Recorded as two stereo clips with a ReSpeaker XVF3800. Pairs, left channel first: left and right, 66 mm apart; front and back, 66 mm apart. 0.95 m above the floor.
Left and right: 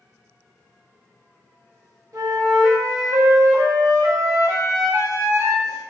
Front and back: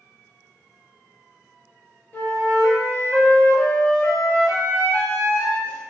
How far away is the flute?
About 0.6 m.